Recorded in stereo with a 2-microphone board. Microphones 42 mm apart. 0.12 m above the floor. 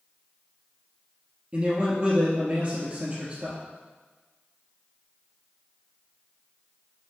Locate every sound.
1.5 s a man speaking: 30° right (ahead or behind), 3 m